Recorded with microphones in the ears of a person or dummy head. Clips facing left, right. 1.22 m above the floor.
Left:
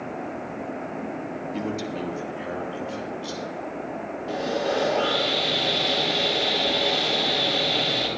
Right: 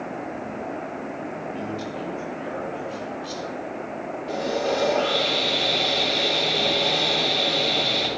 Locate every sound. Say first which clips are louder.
1.5 s a man speaking: left 2 dB; 80° left, 1.9 m; by 3.7 s 55° left (ahead or behind), 3.5 m
4.3 s sawing: right 1 dB; 10° left (ahead or behind), 3 m